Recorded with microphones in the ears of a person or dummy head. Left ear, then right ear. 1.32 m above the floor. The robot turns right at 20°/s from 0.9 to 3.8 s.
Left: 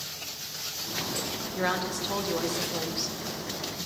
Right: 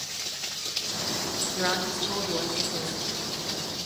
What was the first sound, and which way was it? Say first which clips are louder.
A woman speaking: even; straight ahead.